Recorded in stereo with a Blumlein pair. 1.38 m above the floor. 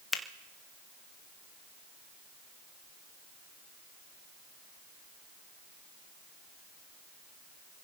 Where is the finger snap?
15° left, 0.9 m.